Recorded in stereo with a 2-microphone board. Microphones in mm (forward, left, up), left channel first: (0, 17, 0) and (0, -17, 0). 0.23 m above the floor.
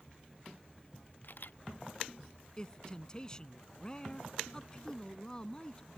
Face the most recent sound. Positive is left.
turn(degrees=20)  # may be behind; listen again after turning